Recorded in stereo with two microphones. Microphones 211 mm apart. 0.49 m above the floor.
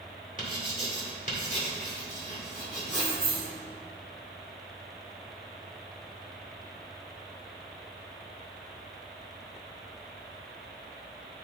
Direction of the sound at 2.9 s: 45° right (ahead or behind).